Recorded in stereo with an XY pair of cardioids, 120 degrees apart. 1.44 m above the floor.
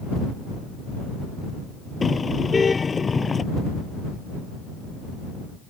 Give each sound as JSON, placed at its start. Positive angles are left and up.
{"t": 2.0, "sound": "a car horn", "azimuth_deg": 25}